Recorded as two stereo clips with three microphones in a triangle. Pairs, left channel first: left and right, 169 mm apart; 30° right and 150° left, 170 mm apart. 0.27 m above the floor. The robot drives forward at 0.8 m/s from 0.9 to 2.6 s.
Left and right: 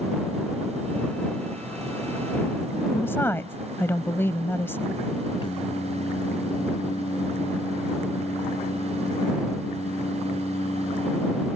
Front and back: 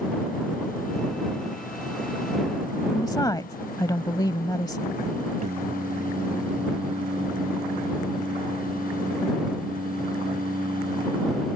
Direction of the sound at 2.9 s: 20° left.